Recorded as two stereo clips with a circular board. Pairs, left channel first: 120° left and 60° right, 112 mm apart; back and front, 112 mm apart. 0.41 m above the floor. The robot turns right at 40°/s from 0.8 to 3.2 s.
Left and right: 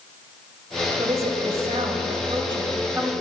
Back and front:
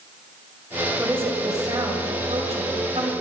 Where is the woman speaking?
75° right, 2.5 m; by 3.1 s 10° left, 2.5 m.